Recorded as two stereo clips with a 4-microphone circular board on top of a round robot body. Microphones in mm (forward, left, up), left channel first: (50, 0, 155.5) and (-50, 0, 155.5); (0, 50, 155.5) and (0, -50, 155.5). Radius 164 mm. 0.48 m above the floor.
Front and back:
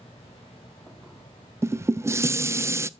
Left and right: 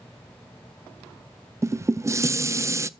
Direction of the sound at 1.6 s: 135° right.